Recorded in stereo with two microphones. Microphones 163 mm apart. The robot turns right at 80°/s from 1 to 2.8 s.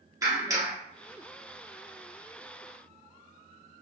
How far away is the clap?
About 1.5 m.